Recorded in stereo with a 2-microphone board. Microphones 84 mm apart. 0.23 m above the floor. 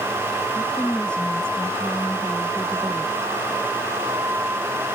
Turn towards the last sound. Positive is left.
turn(degrees=10)  # may be behind; listen again after turning